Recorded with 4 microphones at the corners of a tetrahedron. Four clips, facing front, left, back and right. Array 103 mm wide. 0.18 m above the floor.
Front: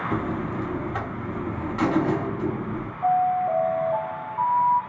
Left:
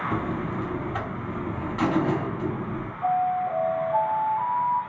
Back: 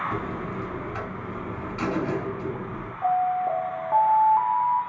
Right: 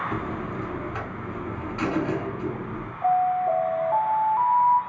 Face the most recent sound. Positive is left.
turn(degrees=-160)